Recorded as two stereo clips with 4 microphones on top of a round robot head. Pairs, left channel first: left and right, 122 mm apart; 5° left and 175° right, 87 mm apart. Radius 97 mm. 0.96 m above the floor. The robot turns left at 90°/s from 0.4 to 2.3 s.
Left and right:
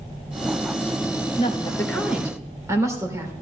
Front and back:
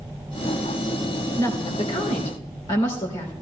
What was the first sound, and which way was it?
A woman speaking, 60° left.